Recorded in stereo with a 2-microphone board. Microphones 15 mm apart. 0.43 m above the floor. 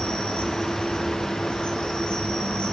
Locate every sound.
0.0 s an insect: 85° left, 4.5 m